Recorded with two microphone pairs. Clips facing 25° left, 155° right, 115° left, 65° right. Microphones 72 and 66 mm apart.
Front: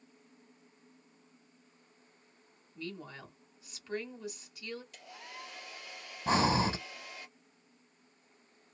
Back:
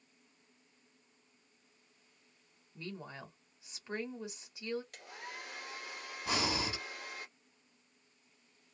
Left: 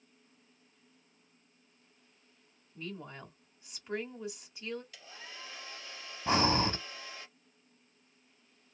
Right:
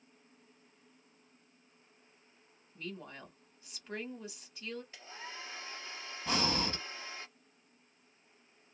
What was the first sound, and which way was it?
A woman speaking, 170° right.